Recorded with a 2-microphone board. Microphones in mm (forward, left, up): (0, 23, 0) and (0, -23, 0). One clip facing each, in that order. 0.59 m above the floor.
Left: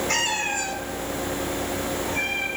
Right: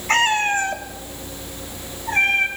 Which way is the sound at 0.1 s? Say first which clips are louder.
Right 7 dB; 35° right (ahead or behind).